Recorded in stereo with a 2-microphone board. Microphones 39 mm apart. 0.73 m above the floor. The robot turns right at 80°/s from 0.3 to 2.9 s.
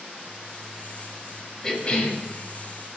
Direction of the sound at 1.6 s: 25° left.